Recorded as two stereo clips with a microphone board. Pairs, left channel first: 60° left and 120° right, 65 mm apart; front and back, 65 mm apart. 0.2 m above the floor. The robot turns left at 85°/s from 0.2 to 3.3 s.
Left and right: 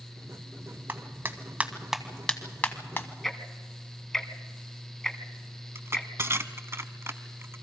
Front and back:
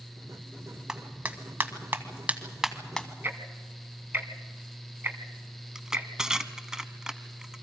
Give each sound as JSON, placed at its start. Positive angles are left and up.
{"t": 0.9, "sound": "a clap", "azimuth_deg": -105, "distance_m": 1.5}
{"t": 3.2, "sound": "ticking", "azimuth_deg": 145, "distance_m": 1.3}
{"t": 5.8, "sound": "crushing", "azimuth_deg": -105, "distance_m": 0.8}